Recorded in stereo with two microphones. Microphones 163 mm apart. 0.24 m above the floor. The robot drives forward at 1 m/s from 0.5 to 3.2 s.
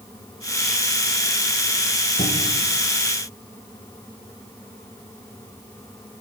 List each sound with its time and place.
2.2 s a cupboard door: 50° left (ahead or behind), 5.5 m; by 2.7 s 45° left (ahead or behind), 6 m